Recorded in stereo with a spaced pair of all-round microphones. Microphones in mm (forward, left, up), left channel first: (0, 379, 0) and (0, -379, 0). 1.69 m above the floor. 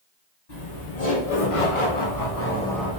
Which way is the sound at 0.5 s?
60° left (ahead or behind).